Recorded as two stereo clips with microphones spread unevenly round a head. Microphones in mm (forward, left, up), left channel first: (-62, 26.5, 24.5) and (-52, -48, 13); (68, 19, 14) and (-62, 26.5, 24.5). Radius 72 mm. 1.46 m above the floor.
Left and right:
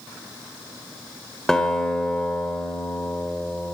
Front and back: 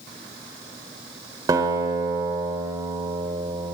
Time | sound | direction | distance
1.5 | a guitar | 160° left | 1.3 m